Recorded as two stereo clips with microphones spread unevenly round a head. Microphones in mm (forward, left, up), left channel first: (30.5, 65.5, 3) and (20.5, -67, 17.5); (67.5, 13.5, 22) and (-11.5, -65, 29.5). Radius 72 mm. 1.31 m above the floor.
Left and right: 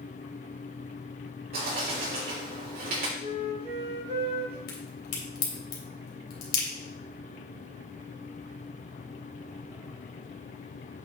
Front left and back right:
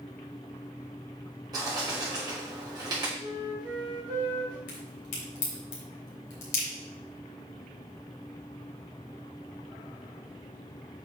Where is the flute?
90° right, 3.5 m.